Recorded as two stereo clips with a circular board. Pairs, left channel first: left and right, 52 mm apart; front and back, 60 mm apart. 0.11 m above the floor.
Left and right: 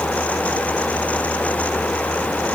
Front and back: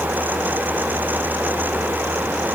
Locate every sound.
Only background noise.